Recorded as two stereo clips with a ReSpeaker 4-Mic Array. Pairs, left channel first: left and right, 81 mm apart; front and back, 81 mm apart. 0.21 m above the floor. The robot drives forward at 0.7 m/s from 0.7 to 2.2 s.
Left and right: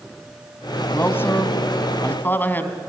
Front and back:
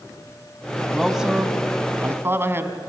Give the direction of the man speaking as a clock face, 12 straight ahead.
9 o'clock.